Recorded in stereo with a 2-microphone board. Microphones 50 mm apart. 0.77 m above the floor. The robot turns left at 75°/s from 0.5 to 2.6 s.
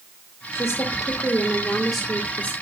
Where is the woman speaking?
100° left, 2.5 m; by 2.5 s 50° right, 2.5 m.